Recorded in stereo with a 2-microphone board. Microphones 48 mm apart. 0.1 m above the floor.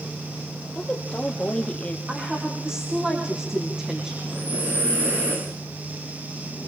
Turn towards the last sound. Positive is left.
turn(degrees=-65)  # may be behind; listen again after turning